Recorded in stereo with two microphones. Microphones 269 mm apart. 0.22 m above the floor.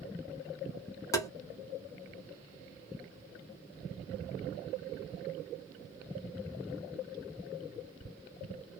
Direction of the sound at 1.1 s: 10° left (ahead or behind).